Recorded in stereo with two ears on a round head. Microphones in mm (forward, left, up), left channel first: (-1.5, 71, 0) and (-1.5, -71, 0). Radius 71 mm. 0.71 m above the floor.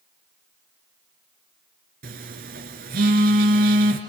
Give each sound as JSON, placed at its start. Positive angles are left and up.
{"t": 2.0, "sound": "a phone buzzing", "side_deg": -65, "distance_m": 3.0}